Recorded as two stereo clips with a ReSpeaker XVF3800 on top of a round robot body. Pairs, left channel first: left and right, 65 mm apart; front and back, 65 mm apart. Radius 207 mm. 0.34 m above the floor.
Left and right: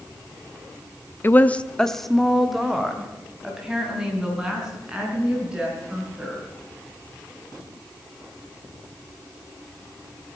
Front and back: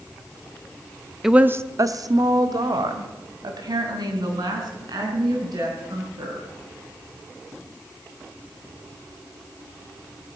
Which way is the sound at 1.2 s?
100° left.